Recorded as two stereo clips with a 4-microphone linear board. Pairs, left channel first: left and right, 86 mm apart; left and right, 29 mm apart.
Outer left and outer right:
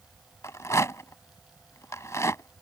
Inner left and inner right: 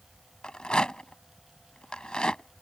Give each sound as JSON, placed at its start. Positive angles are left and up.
{"t": 0.4, "sound": "a rattle", "side_deg": 35}